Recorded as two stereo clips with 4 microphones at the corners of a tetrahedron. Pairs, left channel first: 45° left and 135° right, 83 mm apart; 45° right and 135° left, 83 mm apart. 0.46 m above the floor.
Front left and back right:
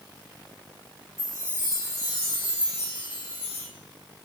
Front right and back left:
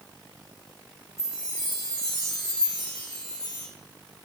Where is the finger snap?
I don't hear a finger snap.